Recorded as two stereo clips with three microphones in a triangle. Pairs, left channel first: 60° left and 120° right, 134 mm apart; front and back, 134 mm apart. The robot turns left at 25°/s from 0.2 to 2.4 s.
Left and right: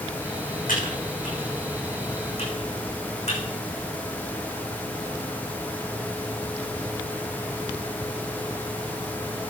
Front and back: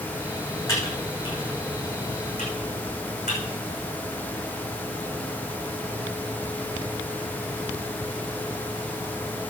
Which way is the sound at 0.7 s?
70° left.